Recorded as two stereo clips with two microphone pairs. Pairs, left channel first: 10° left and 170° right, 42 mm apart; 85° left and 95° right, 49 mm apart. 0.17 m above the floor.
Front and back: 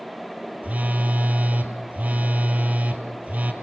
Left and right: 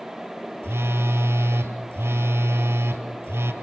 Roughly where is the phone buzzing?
Behind right.